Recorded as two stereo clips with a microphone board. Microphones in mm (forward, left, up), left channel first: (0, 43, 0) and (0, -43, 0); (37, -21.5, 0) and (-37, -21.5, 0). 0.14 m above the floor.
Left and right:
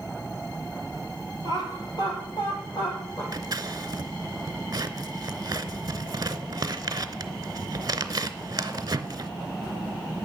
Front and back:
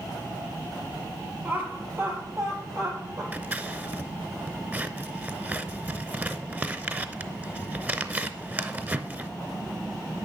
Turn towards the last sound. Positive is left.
turn(degrees=-120)